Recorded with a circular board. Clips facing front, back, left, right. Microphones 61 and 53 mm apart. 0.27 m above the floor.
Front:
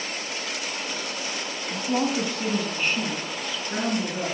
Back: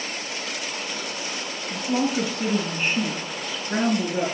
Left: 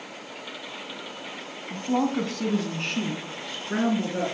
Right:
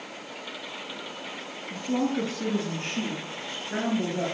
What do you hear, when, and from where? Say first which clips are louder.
1.7 s a woman speaking: back 1 dB, left 2 dB; 65° left, 2.5 m; by 4.2 s 120° left, 5 m